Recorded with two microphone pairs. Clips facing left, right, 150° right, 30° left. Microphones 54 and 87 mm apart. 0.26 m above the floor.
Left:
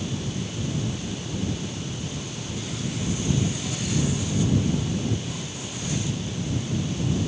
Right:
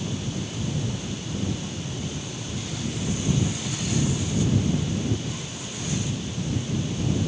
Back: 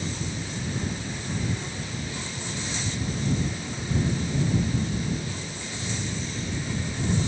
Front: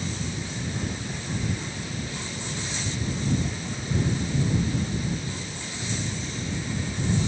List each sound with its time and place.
Only background noise.